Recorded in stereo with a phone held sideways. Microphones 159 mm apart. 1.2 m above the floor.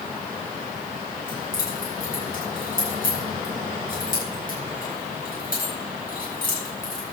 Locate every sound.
1.3 s keys jangling: 60° left (ahead or behind), 6.5 m